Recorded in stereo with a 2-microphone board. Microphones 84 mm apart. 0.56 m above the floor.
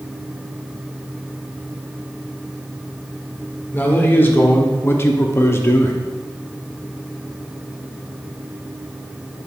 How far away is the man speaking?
About 1.7 m.